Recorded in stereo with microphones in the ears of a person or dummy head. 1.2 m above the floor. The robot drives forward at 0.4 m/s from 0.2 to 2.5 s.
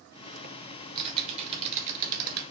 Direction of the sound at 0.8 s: 30° right (ahead or behind).